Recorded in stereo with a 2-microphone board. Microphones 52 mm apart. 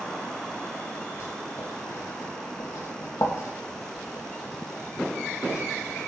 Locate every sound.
1.2 s writing: 70° left (ahead or behind), 2.5 m